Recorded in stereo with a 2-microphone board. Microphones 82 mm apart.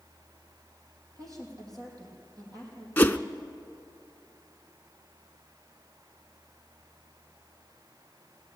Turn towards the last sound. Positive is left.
turn(degrees=20)  # may be behind; listen again after turning